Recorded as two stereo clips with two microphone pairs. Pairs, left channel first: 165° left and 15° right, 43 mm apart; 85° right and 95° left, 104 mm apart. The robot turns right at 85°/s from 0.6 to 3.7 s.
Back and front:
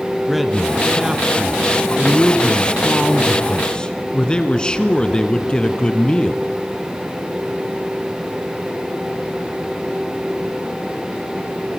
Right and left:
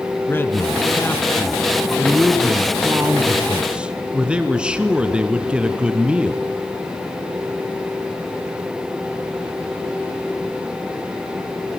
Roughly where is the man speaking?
Right.